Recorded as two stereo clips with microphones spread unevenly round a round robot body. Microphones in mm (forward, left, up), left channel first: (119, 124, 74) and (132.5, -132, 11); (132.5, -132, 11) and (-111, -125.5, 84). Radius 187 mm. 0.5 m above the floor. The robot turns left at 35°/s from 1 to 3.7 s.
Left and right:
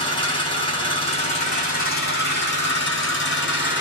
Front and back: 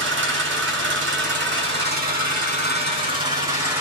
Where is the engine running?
170° left, 1.1 m; by 3.8 s 75° left, 1.1 m.